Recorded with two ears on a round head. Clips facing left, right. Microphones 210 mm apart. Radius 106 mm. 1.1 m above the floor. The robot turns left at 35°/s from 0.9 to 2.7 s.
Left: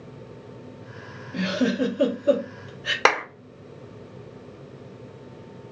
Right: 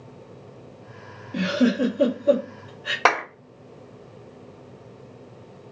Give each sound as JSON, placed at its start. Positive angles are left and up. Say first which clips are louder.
{"t": 1.3, "sound": "a giggle", "louder": "right 3 dB", "side_deg": -20, "distance_m": 1.1}
{"t": 3.0, "sound": "a clap", "louder": "even", "side_deg": 25, "distance_m": 1.4}